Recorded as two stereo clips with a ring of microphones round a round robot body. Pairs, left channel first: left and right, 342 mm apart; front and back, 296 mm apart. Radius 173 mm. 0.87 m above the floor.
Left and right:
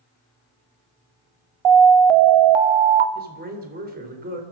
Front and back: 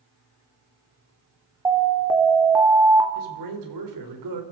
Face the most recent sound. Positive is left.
turn(degrees=-155)